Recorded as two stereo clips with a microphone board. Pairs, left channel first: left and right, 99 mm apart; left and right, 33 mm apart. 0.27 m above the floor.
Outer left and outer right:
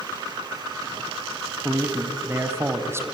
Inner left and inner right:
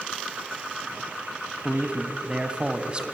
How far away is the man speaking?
About 1.6 m.